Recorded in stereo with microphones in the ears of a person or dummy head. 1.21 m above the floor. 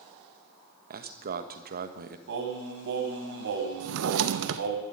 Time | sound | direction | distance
0.9 | a man speaking | 45° right (ahead or behind) | 1.3 m
2.3 | singing | 60° right (ahead or behind) | 1.8 m
3.8 | a drawer | 65° right (ahead or behind) | 0.6 m